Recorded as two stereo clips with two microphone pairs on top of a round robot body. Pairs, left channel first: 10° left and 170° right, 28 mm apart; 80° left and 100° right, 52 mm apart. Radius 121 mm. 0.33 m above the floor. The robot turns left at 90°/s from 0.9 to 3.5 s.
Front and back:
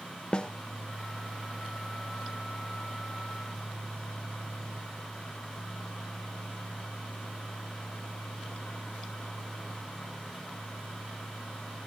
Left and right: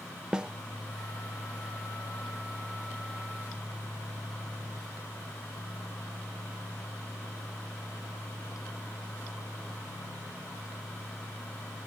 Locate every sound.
0.3 s a snare drum: 25° right